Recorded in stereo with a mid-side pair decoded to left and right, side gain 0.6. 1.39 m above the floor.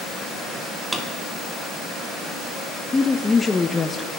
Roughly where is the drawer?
Ahead.